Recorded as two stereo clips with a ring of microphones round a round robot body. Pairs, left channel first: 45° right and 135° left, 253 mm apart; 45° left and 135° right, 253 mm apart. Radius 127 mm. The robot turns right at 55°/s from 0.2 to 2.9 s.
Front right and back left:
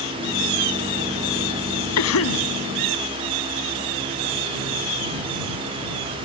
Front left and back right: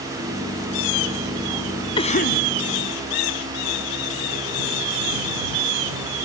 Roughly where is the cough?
Ahead right.